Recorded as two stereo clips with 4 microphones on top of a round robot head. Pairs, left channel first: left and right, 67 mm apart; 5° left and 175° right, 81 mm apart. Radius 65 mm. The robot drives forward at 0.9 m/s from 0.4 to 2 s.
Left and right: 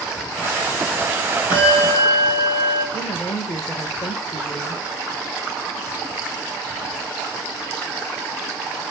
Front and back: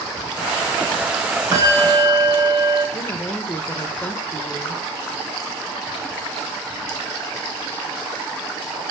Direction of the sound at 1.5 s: 135° left.